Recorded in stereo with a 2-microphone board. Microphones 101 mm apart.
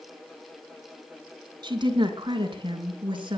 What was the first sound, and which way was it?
A woman speaking, 45° right (ahead or behind).